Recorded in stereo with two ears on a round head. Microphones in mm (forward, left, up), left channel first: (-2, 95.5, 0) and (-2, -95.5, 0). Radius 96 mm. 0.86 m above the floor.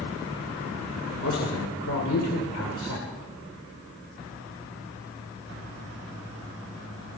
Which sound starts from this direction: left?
A man speaking, at 1.2 s.